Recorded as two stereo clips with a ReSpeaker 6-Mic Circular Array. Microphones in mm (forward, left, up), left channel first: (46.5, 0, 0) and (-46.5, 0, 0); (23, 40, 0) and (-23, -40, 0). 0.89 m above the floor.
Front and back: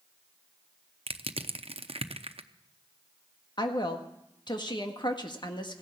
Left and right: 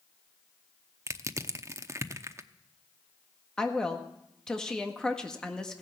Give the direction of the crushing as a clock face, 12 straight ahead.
6 o'clock.